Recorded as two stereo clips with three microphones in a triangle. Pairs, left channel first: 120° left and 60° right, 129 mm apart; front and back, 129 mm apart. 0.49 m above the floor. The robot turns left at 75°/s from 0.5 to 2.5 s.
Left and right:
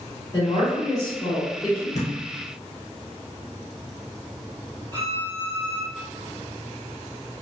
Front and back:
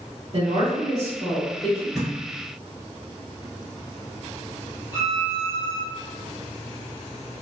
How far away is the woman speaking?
About 1.6 m.